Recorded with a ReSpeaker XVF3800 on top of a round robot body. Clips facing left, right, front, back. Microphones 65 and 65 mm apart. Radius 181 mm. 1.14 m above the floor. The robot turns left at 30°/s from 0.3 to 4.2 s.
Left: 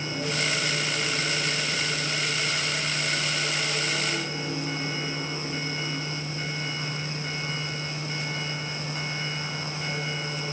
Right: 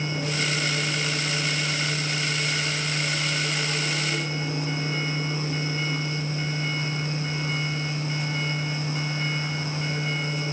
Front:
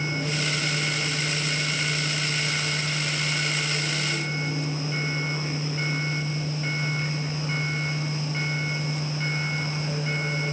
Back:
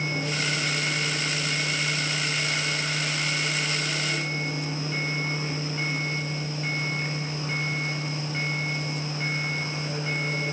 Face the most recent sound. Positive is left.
No sound to turn to.